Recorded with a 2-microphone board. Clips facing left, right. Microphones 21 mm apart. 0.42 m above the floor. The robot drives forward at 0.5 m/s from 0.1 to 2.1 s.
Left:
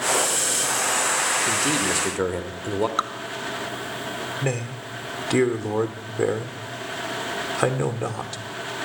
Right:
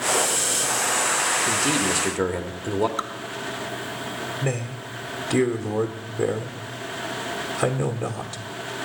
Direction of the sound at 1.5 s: Centre (ahead or behind).